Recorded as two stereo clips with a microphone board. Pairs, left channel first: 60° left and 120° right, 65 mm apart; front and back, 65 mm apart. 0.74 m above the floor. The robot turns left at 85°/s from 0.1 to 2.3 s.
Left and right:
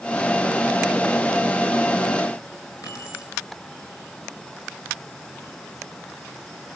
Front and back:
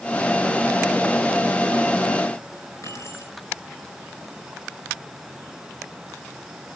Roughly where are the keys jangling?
Ahead left.